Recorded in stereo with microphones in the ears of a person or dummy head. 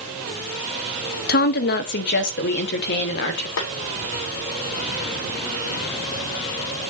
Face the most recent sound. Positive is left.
turn(degrees=70)  # may be behind; listen again after turning